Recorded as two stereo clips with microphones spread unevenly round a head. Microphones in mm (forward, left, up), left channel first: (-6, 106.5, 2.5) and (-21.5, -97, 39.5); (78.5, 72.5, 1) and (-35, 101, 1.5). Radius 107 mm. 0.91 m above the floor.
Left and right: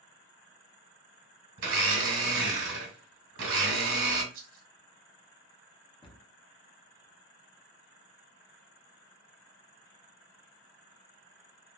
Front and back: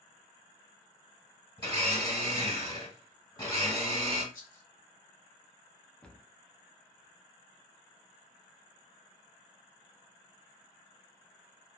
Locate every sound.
1.6 s a blender: 80° right, 1.1 m
4.3 s a rattle: 45° right, 0.7 m
6.0 s a cupboard door: 65° left, 0.6 m